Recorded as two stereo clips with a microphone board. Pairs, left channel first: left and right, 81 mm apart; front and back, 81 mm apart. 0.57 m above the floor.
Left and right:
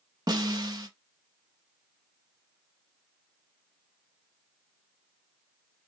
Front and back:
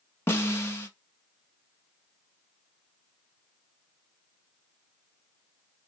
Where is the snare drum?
60° right, 1.0 m.